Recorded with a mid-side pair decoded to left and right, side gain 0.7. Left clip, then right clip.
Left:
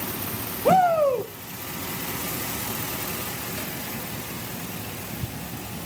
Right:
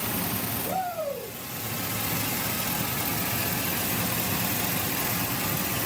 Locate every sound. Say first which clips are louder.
0.7 s a shout: left 13 dB; 65° left, 1.5 m